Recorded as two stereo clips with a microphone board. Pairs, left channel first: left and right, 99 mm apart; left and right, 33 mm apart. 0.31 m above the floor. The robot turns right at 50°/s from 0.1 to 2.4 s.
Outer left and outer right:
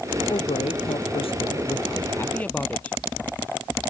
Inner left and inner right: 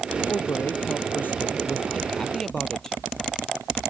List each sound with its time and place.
0.3 s a man speaking: 60° left; by 3.0 s 165° left